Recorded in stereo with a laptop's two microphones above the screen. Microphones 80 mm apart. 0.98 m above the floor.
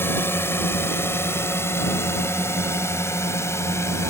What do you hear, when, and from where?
0.0 s a drone: 30° left (ahead or behind); by 4.1 s 35° left (ahead or behind)